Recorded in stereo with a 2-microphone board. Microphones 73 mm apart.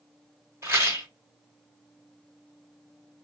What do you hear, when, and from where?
0.6 s a rattle: 35° right (ahead or behind), 1.2 m